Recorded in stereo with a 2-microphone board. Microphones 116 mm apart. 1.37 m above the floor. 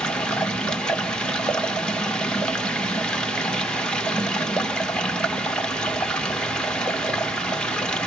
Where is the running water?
5° left (ahead or behind), 0.9 m.